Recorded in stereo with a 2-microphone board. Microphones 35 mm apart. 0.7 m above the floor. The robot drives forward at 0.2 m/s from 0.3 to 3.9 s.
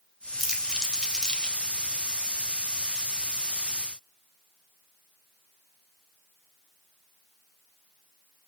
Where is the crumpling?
5° left (ahead or behind), 3 m.